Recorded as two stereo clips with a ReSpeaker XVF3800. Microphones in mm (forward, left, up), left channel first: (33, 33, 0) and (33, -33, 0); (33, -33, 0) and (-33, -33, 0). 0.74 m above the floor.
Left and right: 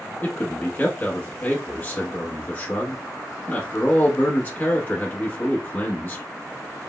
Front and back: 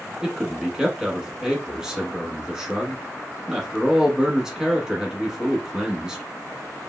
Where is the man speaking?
110° left, 1.0 m.